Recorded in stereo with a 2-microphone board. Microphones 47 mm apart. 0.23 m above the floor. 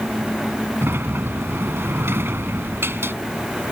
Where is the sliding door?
55° right (ahead or behind).